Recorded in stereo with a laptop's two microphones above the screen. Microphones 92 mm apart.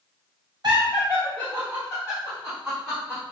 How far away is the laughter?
About 0.8 m.